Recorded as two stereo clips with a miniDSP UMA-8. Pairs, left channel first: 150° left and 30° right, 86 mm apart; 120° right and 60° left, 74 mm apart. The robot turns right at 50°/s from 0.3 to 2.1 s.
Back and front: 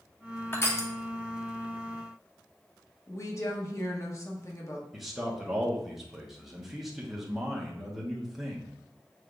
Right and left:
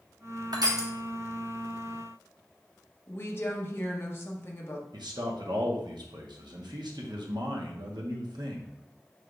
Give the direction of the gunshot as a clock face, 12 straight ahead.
No gunshot in this recording.